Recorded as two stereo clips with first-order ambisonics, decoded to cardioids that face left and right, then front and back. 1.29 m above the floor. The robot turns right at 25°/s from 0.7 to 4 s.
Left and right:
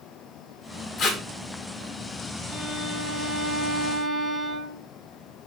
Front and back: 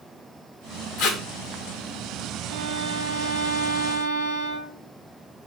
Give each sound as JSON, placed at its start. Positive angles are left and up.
{"t": 1.0, "sound": "tape being pulled", "azimuth_deg": 35, "distance_m": 1.7}
{"t": 2.5, "sound": "a violin", "azimuth_deg": 155, "distance_m": 2.0}